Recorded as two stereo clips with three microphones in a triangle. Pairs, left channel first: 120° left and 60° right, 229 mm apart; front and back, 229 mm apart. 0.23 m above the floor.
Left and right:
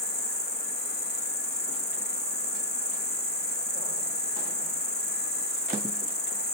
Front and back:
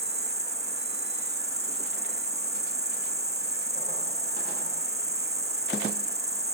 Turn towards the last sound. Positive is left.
turn(degrees=130)